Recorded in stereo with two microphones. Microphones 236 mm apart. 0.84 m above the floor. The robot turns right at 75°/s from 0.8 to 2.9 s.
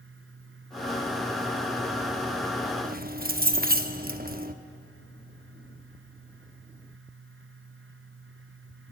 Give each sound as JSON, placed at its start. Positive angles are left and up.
{"t": 2.8, "sound": "keys jangling", "side_deg": -35, "distance_m": 0.8}